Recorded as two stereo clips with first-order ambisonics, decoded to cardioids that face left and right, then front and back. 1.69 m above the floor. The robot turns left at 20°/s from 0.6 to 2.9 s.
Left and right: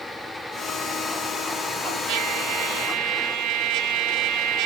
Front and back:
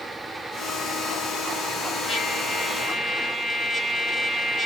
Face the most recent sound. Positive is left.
turn(degrees=-75)